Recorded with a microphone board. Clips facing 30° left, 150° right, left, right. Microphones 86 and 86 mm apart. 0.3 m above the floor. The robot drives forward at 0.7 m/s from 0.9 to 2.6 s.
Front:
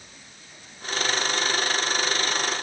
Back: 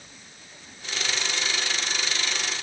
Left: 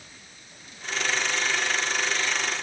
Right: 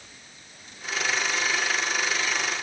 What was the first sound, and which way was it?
Only background noise.